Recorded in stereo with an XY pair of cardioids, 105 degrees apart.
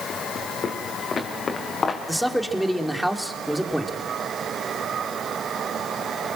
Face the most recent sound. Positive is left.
turn(degrees=0)